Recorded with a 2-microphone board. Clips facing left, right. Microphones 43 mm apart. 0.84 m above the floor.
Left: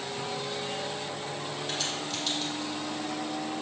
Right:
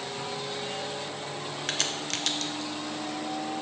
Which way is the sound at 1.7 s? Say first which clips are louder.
Right 4 dB; 70° right (ahead or behind).